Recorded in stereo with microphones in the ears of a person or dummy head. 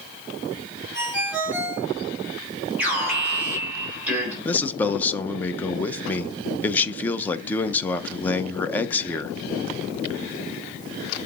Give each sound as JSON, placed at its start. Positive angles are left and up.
{"t": 0.9, "sound": "a ringtone", "side_deg": -10, "distance_m": 4.0}
{"t": 2.8, "sound": "an alarm", "side_deg": -5, "distance_m": 4.0}
{"t": 4.5, "sound": "a man speaking", "side_deg": 10, "distance_m": 0.6}